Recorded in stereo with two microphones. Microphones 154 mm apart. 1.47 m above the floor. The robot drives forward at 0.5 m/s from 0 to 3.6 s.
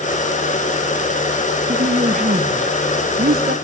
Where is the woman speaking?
55° right (ahead or behind), 1.4 m; by 3.6 s 80° right, 1.2 m.